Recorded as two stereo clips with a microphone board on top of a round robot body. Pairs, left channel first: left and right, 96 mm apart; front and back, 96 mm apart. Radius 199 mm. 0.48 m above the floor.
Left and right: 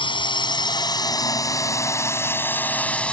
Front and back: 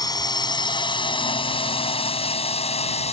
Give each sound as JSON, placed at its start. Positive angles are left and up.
{"t": 0.0, "sound": "a drone", "azimuth_deg": 50}